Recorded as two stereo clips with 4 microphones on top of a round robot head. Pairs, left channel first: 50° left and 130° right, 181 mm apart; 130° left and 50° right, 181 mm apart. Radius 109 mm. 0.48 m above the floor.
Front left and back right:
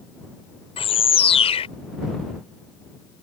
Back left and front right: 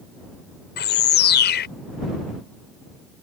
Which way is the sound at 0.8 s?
105° left.